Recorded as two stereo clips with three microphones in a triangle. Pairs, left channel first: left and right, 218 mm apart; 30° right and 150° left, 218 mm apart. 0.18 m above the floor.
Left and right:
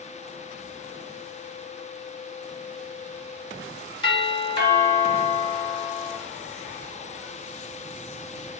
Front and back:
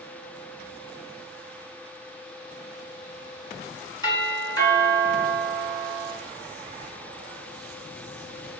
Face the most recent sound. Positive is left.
turn(degrees=35)